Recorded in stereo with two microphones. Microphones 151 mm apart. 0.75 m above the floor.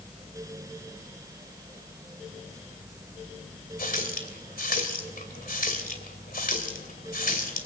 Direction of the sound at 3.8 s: 70° left (ahead or behind).